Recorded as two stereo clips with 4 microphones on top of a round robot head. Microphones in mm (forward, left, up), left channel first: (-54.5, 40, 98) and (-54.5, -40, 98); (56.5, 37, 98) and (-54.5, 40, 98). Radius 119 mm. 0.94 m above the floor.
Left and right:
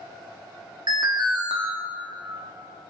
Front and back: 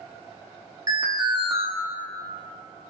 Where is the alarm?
120° right, 1.7 m.